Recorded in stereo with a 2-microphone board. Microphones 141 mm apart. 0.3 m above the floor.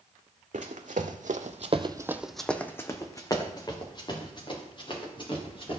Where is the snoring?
I don't hear snoring.